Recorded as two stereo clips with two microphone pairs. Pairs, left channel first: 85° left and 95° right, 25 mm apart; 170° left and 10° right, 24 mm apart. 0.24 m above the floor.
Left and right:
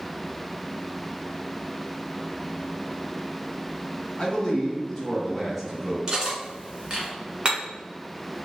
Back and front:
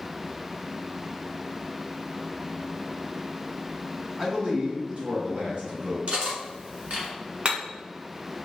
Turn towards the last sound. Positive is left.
turn(degrees=-40)